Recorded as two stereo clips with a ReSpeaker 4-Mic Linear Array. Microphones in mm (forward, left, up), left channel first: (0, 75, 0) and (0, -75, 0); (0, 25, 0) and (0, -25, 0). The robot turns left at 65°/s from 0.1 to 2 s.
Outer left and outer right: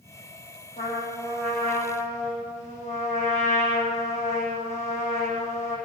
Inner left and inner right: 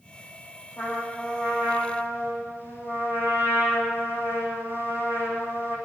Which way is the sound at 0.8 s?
130° left.